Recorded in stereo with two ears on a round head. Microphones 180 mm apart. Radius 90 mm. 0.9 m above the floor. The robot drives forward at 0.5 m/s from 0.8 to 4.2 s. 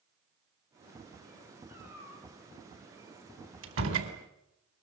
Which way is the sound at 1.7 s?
10° right (ahead or behind).